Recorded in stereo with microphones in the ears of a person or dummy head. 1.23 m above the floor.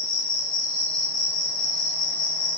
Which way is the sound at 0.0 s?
60° left (ahead or behind).